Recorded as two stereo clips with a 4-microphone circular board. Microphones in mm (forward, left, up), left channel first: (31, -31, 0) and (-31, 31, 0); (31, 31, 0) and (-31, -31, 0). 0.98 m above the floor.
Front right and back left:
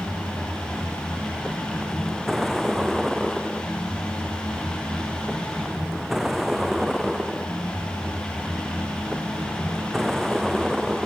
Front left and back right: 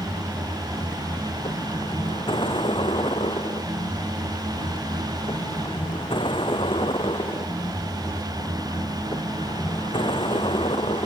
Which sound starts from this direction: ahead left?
A vehicle, at 0.0 s.